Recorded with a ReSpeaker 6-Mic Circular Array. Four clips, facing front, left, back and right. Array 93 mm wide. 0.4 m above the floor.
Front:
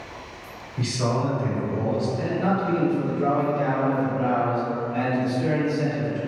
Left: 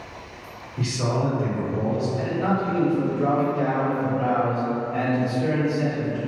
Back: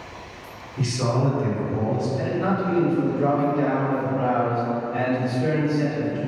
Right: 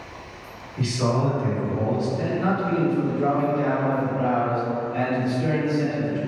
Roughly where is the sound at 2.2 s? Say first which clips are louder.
Even, even; behind left.